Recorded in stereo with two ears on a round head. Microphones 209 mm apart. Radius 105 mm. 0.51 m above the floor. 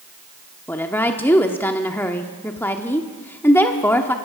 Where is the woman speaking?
10° left (ahead or behind), 1.0 m.